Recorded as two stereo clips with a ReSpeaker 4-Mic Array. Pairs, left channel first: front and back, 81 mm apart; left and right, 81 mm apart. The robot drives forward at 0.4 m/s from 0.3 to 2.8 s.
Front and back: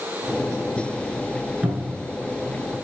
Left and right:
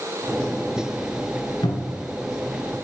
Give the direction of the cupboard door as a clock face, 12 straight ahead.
9 o'clock.